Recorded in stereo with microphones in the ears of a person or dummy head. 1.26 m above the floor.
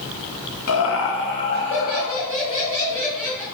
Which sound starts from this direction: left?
Laughter, at 0.7 s.